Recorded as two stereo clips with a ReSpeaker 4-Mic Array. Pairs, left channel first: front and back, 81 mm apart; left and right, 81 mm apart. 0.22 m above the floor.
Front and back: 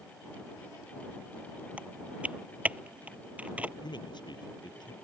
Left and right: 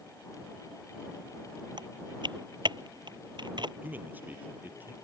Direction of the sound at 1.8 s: 105° right.